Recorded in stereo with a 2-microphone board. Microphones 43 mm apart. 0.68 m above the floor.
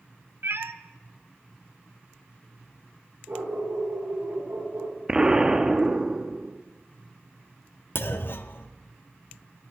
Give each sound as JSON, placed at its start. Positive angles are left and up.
{"t": 0.4, "sound": "a cat meowing", "side_deg": -65, "distance_m": 0.6}
{"t": 3.3, "sound": "a dog barking", "side_deg": -85, "distance_m": 6.0}
{"t": 5.1, "sound": "an explosion", "side_deg": -20, "distance_m": 0.9}
{"t": 8.0, "sound": "a clunk", "side_deg": 60, "distance_m": 0.6}